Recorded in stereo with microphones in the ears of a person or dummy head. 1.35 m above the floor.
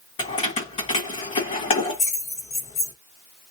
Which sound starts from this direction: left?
Keys jangling, at 0.2 s.